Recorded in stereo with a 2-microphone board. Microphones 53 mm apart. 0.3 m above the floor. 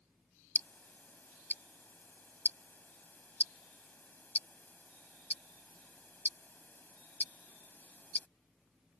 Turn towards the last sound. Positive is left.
turn(degrees=35)  # may be behind; listen again after turning